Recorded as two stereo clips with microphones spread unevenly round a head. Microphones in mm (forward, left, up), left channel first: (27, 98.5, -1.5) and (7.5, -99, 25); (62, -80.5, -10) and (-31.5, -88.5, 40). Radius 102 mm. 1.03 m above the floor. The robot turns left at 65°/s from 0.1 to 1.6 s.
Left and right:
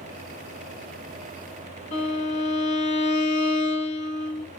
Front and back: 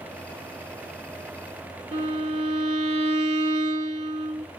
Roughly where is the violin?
Behind left.